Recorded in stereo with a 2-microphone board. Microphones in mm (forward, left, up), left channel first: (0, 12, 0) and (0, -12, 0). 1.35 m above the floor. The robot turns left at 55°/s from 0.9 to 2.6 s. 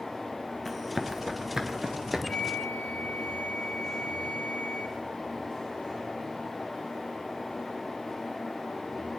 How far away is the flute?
About 1.1 m.